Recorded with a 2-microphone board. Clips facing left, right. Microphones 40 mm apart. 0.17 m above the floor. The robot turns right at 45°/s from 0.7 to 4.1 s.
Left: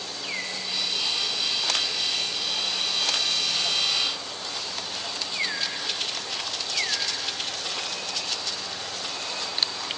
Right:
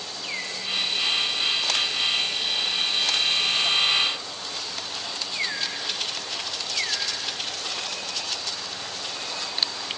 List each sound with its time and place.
Only background noise.